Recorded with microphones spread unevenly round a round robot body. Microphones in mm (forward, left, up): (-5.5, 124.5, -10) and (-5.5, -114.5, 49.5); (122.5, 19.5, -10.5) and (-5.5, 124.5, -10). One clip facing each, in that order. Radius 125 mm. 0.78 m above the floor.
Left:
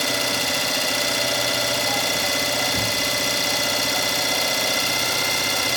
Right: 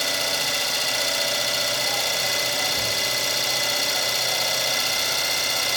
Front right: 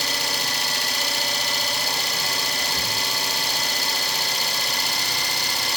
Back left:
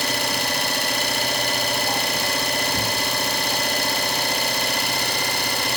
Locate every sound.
0.0 s an engine running: 105° left, 0.9 m